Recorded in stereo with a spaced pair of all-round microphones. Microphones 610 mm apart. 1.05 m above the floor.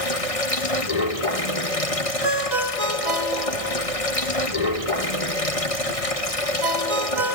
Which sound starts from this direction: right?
A ringtone, at 2.2 s.